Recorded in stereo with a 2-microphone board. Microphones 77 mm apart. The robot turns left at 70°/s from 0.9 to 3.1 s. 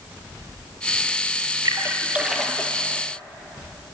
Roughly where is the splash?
Right.